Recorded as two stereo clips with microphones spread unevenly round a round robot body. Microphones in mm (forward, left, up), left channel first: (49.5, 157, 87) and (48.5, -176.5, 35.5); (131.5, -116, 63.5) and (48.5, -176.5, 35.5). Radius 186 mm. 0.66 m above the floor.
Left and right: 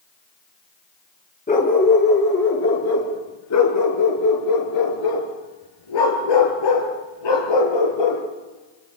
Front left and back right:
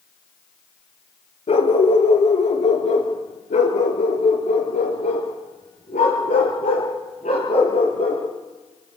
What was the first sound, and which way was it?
A dog barking, 25° left.